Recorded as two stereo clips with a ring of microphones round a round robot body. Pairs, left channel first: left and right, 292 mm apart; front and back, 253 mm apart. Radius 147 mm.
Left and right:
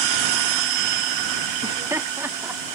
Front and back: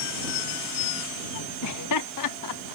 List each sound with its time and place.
1.6 s laughter: 15° right; by 2.8 s 5° right